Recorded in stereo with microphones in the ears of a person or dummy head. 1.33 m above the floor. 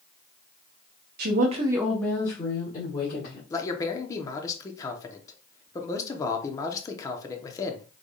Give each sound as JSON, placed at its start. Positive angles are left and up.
{"t": 1.2, "sound": "a woman speaking", "side_deg": -60, "distance_m": 0.9}
{"t": 3.5, "sound": "a man speaking", "side_deg": 20, "distance_m": 0.7}